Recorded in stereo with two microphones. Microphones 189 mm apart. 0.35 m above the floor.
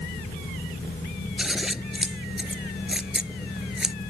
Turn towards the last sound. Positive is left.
turn(degrees=-5)  # may be behind; listen again after turning